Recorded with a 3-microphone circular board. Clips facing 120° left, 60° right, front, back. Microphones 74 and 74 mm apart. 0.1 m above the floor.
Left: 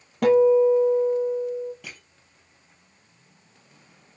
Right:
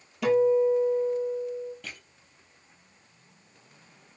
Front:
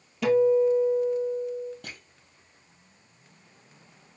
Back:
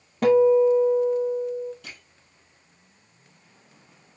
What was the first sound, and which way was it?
A guitar, 145° left.